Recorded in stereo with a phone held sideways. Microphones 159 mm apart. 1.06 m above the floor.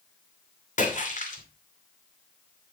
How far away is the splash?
About 2.5 m.